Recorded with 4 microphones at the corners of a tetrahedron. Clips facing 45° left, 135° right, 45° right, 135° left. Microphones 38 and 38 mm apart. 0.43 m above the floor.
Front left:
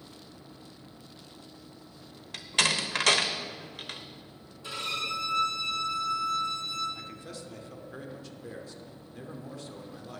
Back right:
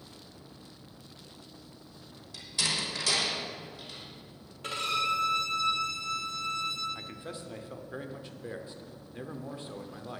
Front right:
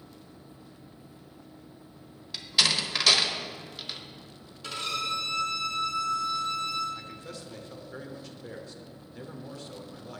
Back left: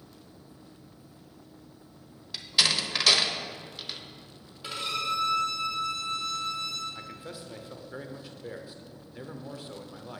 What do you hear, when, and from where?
2.3 s a door slam: 45° left, 0.9 m
4.6 s a violin: 150° right, 2.5 m
7.0 s a man speaking: 170° right, 0.8 m